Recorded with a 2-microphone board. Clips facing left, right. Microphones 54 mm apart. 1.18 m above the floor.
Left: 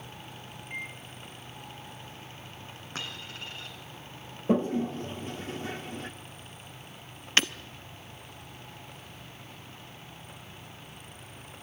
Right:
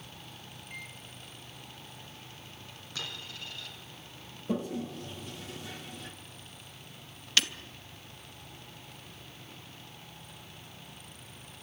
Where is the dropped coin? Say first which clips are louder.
Left 2 dB; 40° left (ahead or behind), 3.5 m.